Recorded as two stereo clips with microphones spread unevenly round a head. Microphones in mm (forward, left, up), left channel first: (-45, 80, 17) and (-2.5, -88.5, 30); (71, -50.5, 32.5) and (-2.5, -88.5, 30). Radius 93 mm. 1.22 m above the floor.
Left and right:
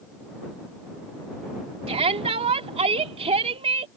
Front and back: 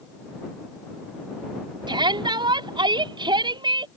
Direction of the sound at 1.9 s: 130° right.